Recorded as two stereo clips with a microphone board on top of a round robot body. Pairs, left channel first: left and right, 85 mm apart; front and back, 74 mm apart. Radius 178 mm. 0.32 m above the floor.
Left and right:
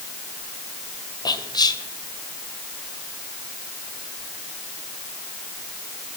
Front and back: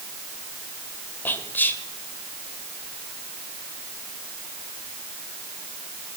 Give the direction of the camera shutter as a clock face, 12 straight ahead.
No camera shutter in this recording.